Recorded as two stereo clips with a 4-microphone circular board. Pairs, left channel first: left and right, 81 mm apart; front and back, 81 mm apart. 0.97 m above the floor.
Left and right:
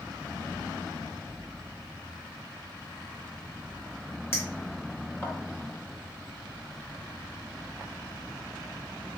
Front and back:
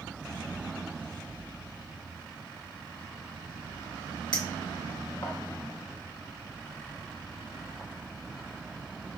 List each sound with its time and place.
4.3 s a clink: 30° left, 1.1 m